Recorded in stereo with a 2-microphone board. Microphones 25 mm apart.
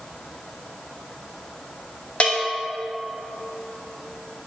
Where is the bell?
45° left (ahead or behind), 1.2 m.